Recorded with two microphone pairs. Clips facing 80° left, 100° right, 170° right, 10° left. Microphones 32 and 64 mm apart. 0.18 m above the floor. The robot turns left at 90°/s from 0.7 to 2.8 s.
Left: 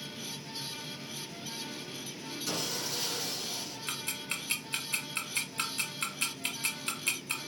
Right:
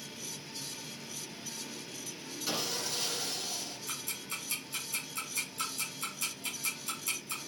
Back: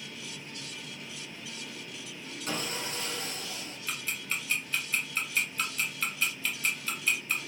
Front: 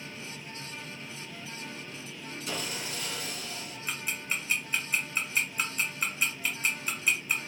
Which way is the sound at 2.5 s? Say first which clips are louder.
Right 1 dB, back 2 dB; 175° right.